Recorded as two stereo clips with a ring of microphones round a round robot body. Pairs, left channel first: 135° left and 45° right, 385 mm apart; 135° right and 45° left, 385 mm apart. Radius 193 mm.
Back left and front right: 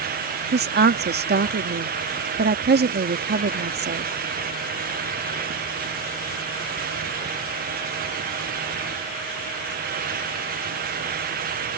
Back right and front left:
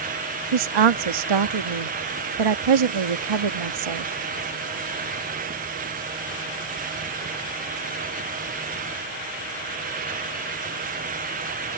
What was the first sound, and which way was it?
A woman speaking, 20° left.